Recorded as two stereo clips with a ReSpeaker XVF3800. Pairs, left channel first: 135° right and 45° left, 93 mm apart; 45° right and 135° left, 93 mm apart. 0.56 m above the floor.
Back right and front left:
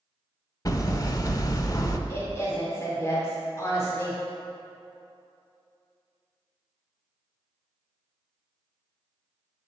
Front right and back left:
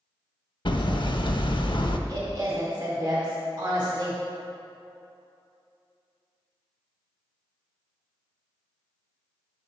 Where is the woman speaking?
170° left, 1.8 m.